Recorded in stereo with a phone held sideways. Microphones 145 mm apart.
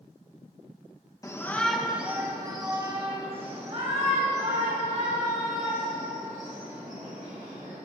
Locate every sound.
1.2 s a shout: 25° left (ahead or behind), 1.1 m; by 7.8 s 60° right (ahead or behind), 5.5 m